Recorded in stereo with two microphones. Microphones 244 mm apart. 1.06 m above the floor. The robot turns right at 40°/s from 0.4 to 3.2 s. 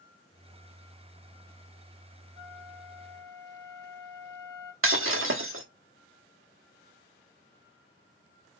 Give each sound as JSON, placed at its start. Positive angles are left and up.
{"t": 2.4, "sound": "a flute", "azimuth_deg": -125, "distance_m": 1.0}
{"t": 4.8, "sound": "breaking glass", "side_deg": -60, "distance_m": 1.0}